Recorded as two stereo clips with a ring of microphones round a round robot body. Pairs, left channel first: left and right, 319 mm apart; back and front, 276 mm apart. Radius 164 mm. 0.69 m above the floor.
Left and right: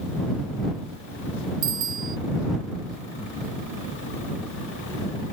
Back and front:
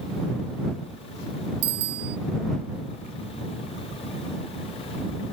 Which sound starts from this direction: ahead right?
A bicycle bell, at 1.6 s.